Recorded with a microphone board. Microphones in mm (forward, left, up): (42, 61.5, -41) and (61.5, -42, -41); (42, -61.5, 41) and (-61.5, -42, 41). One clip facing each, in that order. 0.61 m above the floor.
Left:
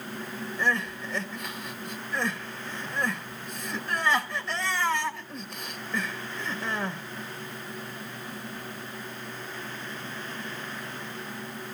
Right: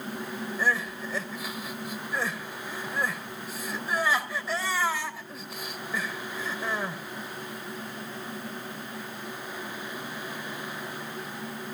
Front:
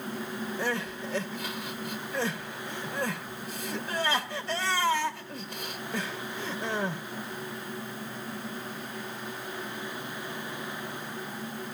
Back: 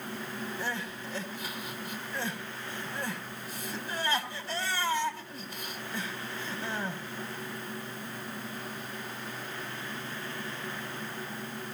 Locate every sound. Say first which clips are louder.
0.6 s crying: left 1 dB, front 4 dB; 5° left, 1.8 m